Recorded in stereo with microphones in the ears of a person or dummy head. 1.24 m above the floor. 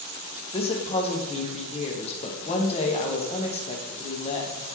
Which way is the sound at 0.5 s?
30° left (ahead or behind).